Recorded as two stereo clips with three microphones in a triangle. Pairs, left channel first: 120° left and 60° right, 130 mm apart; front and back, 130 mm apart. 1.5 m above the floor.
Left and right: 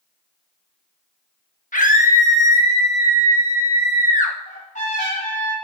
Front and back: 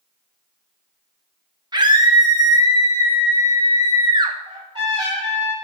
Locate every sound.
1.7 s a scream: 125° left, 1.5 m
4.5 s a trumpet: 125° left, 5.5 m